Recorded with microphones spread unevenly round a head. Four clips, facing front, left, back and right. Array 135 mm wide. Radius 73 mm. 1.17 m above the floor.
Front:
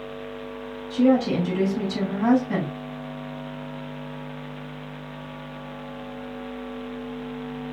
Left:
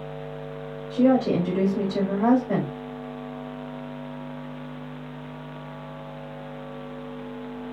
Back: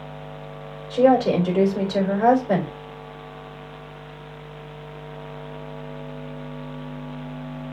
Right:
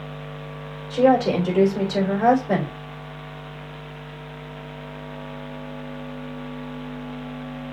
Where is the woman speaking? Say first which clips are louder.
Right 2 dB, back 3 dB; 125° right, 3 m.